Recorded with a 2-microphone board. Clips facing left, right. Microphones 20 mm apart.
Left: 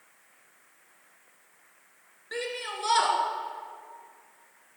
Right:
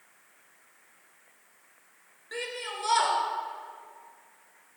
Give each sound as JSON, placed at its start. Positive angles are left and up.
{"t": 2.3, "sound": "a shout", "side_deg": 10, "distance_m": 1.2}